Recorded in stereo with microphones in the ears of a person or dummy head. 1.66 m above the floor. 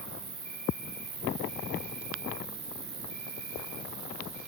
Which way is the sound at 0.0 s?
80° right.